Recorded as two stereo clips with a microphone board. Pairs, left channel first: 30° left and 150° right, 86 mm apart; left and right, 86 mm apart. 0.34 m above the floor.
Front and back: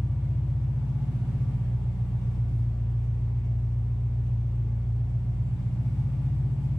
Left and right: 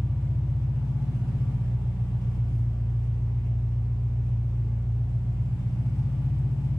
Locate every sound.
0.0 s an engine running: 115° right, 1.8 m